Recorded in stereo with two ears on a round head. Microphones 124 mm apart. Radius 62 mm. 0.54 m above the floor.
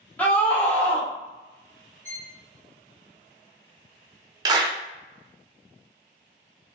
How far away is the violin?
About 1.6 m.